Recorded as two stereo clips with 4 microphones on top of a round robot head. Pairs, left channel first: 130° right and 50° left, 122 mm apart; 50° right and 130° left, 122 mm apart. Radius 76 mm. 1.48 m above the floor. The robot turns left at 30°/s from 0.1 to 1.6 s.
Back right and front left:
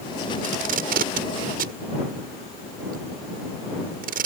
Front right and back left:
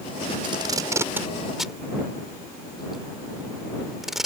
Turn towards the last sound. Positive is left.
turn(degrees=40)